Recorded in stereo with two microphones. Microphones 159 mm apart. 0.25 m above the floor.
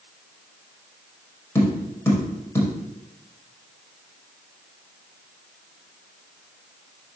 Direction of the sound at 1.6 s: 15° left (ahead or behind).